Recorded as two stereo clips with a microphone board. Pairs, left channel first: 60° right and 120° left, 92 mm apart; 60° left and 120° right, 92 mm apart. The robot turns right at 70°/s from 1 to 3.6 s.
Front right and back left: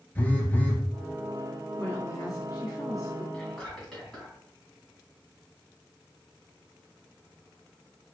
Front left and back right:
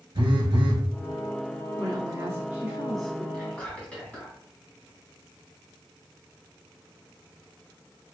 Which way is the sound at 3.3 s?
Straight ahead.